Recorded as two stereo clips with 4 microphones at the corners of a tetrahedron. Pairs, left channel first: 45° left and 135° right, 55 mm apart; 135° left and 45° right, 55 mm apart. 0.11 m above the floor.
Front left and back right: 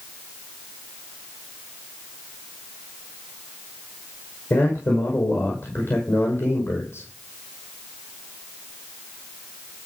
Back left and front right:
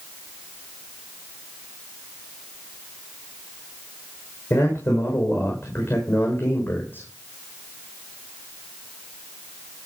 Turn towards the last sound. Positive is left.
turn(degrees=85)